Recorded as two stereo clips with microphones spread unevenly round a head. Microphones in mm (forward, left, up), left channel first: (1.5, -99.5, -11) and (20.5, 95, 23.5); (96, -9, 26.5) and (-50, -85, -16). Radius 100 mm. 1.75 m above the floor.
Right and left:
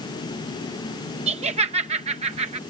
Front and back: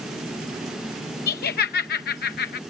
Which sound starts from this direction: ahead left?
Laughter, at 1.3 s.